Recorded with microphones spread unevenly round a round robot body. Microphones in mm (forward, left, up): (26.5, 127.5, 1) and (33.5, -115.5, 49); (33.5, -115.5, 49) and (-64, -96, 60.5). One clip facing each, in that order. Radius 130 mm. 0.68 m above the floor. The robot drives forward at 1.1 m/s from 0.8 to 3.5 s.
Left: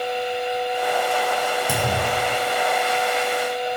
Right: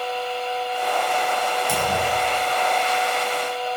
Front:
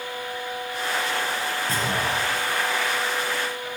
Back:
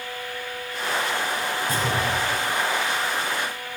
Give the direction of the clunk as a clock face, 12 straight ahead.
10 o'clock.